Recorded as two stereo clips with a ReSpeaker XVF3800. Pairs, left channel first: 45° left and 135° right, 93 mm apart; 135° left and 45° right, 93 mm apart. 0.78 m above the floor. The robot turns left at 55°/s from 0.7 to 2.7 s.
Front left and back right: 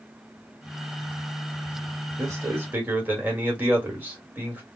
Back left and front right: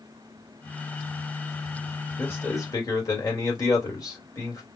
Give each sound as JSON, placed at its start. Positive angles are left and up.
{"t": 2.2, "sound": "a man speaking", "azimuth_deg": -170, "distance_m": 1.5}